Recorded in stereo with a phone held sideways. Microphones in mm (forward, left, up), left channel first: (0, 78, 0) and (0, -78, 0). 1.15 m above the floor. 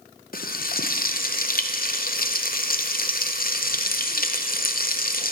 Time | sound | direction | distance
0.3 | frying | 70° left (ahead or behind) | 0.6 m